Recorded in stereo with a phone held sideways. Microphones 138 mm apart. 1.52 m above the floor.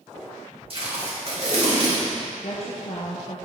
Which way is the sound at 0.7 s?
45° right (ahead or behind).